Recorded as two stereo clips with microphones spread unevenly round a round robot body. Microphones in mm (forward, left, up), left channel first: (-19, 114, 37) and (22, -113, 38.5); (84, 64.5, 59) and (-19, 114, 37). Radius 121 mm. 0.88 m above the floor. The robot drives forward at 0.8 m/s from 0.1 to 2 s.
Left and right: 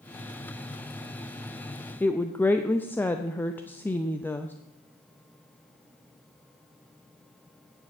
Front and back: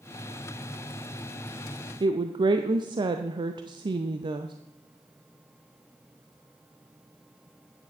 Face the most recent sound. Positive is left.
turn(degrees=180)